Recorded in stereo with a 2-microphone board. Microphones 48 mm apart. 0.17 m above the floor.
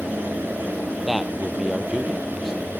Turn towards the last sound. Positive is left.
turn(degrees=-5)  # may be behind; listen again after turning